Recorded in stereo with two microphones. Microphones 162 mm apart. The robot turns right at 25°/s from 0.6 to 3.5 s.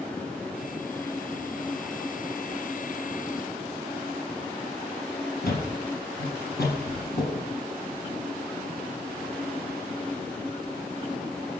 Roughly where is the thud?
Left.